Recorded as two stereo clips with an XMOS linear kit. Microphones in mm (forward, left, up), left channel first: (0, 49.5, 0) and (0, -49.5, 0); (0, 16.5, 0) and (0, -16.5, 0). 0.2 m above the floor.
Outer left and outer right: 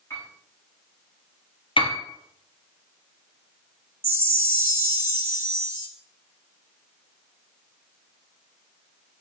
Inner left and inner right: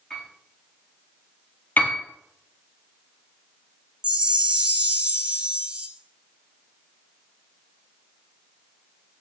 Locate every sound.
0.1 s a piano: 25° left (ahead or behind), 5 m
1.8 s a piano: 55° left (ahead or behind), 2.0 m
4.0 s a chime: 25° right (ahead or behind), 1.3 m